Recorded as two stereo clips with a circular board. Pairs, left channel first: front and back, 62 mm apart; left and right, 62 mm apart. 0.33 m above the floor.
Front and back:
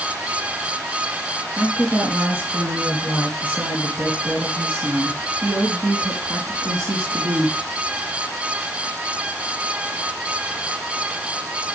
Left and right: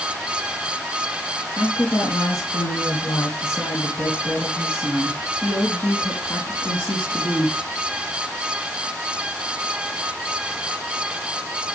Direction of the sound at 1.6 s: 115° left.